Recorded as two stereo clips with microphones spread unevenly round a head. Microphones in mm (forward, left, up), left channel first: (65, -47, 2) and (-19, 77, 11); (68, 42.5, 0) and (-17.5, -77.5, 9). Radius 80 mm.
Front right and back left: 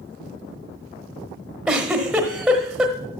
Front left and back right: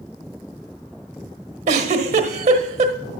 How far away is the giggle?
About 1.2 m.